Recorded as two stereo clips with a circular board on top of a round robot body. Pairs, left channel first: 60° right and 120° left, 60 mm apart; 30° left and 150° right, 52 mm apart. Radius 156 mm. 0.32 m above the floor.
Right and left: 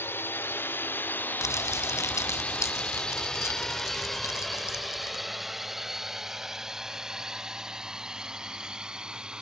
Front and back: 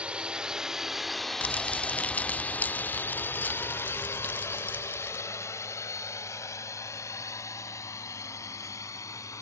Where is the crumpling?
30° right.